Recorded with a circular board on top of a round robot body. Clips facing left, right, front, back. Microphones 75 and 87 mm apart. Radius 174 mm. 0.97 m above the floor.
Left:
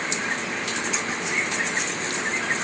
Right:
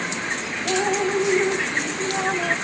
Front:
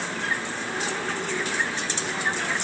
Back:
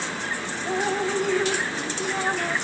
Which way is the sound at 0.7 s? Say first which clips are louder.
Right 7 dB, back 7 dB; 120° right.